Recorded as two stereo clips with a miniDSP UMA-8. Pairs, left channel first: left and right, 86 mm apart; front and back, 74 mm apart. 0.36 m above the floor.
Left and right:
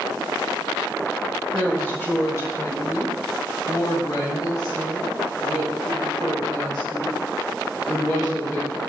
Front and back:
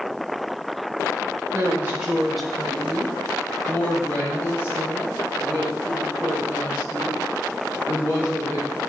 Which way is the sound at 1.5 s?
160° left.